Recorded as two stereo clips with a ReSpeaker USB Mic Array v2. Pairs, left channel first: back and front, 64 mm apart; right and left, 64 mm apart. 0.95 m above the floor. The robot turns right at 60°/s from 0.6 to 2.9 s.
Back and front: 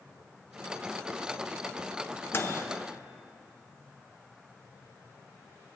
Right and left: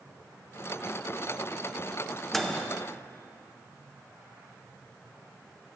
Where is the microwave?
175° right, 0.7 m; by 2.6 s 155° right, 0.7 m.